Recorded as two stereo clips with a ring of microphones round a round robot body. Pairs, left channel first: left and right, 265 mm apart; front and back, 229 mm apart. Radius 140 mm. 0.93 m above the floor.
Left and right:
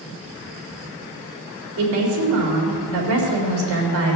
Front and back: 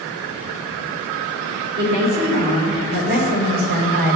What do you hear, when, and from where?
1.8 s a woman speaking: 125° right, 3.5 m